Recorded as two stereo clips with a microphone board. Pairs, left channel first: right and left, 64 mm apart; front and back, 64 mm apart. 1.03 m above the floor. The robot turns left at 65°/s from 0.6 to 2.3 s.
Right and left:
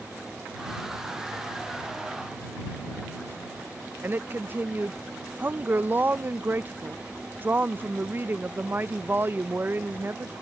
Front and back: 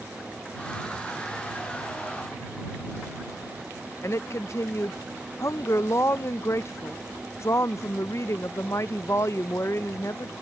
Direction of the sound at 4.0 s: 35° left.